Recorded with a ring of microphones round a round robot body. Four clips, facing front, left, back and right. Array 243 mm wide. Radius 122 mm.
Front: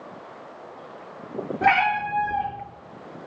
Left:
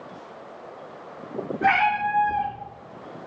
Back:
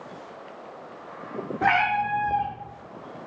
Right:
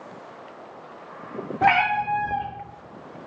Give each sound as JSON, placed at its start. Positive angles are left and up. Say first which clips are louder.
{"t": 1.6, "sound": "a cat meowing", "louder": "right 1 dB, front 2 dB", "azimuth_deg": -60, "distance_m": 1.3}